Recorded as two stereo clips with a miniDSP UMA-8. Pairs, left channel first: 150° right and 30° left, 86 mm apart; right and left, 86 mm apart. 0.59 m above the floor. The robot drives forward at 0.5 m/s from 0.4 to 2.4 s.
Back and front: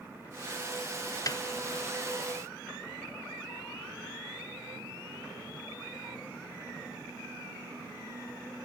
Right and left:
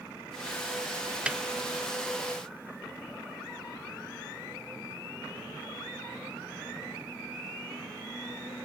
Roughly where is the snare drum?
Behind.